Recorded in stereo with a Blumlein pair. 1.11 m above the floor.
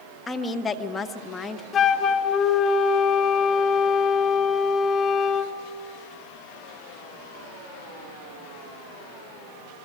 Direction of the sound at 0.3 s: 15° left.